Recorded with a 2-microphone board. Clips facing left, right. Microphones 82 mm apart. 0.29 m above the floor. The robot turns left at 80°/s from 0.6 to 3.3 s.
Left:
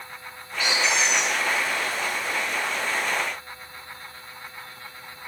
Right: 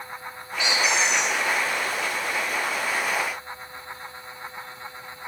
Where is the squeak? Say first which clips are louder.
Even; 55° left, 2.5 m; by 1.4 s 10° right, 2.5 m.